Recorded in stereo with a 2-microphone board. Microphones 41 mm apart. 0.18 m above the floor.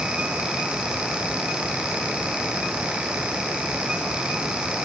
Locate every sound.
Only background noise.